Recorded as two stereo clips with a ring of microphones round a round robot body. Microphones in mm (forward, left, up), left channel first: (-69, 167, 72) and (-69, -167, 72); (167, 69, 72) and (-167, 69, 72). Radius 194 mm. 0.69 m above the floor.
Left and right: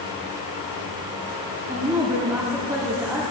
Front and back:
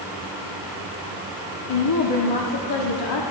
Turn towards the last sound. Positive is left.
turn(degrees=-10)